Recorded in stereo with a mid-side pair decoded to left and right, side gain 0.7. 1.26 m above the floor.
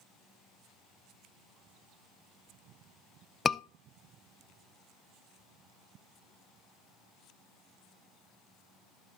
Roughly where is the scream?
Ahead left.